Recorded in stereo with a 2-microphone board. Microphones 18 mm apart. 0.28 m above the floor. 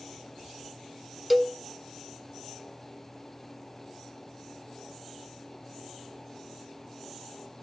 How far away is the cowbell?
About 0.5 m.